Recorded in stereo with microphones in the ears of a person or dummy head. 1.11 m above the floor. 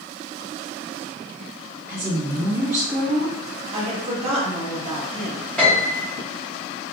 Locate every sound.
1.9 s a woman speaking: 15° right (ahead or behind), 1.7 m
3.7 s a woman speaking: 30° right (ahead or behind), 1.2 m
5.6 s a piano: 5° left (ahead or behind), 1.4 m